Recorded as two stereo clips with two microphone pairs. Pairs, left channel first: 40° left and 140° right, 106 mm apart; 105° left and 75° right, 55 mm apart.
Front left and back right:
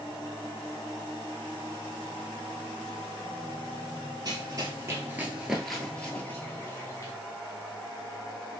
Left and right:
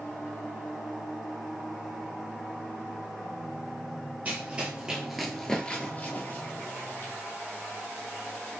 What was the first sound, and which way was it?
Running footsteps, 115° right.